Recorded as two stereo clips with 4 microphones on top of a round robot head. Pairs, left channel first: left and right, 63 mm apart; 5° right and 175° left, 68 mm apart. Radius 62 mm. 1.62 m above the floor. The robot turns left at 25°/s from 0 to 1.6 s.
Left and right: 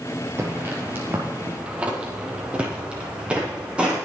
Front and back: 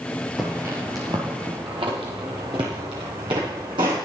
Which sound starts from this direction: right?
Footsteps, at 0.4 s.